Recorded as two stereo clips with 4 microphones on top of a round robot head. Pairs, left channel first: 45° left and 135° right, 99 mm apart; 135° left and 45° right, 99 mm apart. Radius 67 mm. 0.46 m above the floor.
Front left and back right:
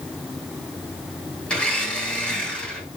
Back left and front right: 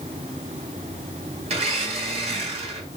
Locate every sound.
1.5 s a blender: 35° right, 6 m